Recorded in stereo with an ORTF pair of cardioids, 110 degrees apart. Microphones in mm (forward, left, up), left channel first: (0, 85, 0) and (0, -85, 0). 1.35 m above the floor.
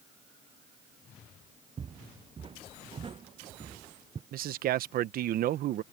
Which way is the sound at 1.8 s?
35° right.